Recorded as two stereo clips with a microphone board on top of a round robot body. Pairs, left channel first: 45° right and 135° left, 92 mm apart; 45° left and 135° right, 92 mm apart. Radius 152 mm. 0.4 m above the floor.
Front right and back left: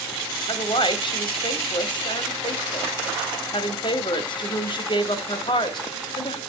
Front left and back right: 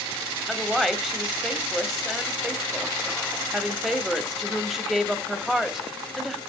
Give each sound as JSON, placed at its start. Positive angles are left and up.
{"t": 0.5, "sound": "a woman speaking", "azimuth_deg": -50, "distance_m": 2.0}